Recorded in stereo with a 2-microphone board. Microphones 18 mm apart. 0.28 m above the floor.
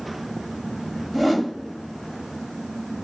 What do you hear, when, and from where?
1.1 s a whoosh: 5° right (ahead or behind), 0.9 m